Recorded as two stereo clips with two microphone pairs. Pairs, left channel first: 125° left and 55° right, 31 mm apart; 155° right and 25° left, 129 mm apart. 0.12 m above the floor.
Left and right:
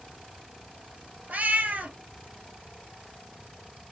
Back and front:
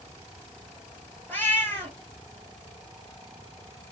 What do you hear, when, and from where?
1.3 s a cat meowing: 85° right, 1.2 m